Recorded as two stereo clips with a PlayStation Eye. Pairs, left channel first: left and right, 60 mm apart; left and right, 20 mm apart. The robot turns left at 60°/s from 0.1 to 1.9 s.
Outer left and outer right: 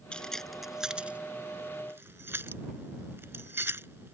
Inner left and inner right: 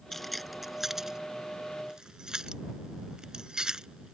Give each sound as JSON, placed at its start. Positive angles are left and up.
{"t": 0.1, "sound": "keys jangling", "side_deg": 15}